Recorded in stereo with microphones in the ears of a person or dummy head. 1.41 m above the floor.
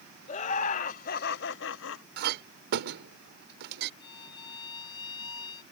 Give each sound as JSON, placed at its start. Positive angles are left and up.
{"t": 0.3, "sound": "laughter", "side_deg": 40}
{"t": 2.2, "sound": "a clink", "side_deg": -55}
{"t": 4.0, "sound": "a violin", "side_deg": 30}